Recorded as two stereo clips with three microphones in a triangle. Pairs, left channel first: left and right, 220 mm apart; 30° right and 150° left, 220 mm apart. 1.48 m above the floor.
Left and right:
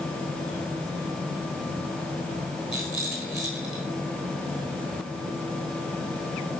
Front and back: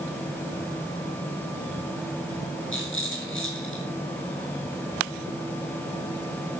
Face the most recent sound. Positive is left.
turn(degrees=0)